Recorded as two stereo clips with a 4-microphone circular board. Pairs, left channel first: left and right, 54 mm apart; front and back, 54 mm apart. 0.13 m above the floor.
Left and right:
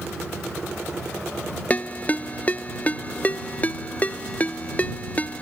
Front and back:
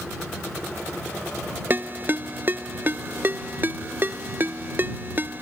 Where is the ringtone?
145° left.